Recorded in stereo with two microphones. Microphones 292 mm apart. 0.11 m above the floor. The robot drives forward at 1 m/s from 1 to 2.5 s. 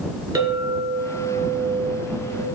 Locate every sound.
0.3 s a clink: 15° right (ahead or behind), 0.7 m; by 2.5 s 5° right (ahead or behind), 1.9 m